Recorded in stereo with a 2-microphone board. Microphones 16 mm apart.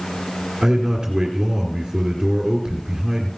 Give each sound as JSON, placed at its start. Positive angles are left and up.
{"t": 0.6, "sound": "a man speaking", "side_deg": -25, "distance_m": 2.0}